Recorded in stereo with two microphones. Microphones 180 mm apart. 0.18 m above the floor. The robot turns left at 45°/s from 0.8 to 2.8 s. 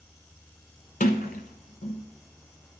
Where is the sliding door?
50° left (ahead or behind), 0.8 m.